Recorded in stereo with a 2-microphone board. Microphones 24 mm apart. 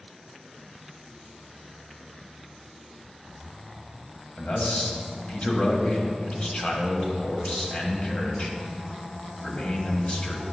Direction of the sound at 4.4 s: 50° left (ahead or behind).